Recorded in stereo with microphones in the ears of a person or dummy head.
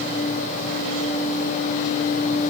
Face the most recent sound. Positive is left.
No sound to turn to.